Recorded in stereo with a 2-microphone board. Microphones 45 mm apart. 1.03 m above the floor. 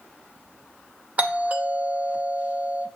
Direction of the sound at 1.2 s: 35° right (ahead or behind).